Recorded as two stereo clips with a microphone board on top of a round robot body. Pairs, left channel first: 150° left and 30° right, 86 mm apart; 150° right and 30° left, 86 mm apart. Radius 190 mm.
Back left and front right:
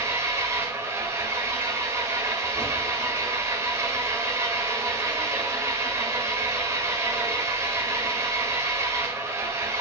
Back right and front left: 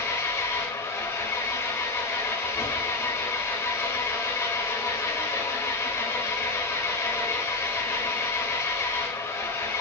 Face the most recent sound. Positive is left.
turn(degrees=-90)